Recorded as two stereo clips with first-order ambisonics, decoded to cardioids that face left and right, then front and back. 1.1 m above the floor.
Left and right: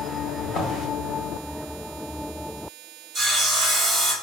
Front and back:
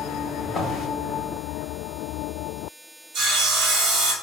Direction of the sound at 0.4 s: 70° left.